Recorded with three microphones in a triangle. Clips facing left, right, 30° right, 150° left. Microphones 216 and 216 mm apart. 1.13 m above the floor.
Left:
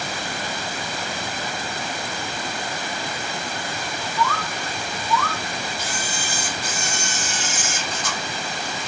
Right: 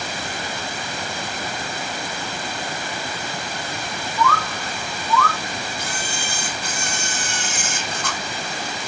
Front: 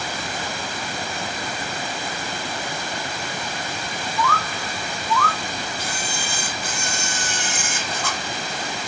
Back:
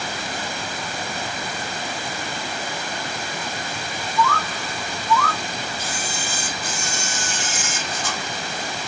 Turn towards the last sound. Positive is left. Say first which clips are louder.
# even, even
turn(degrees=-60)